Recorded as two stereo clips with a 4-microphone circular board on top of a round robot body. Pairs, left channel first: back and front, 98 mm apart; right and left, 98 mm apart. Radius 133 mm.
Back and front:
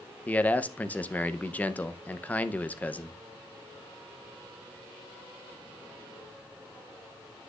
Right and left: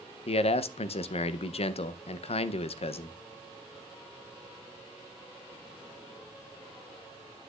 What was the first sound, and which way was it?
A man speaking, 105° right.